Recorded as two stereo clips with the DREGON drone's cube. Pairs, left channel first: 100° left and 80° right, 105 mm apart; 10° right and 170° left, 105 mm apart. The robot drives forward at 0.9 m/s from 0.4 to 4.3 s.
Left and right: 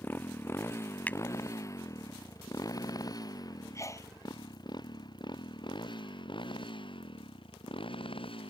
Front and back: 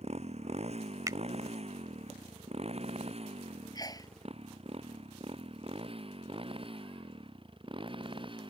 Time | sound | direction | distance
0.0 | a motorcycle | 170° left | ?
1.1 | a finger snap | 155° left | ?
3.8 | a sneeze | 40° left | ?